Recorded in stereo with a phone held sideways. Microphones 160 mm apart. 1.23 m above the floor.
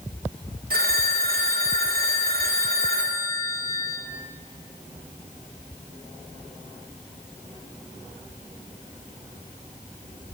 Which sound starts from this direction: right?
A phone ringing, at 0.7 s.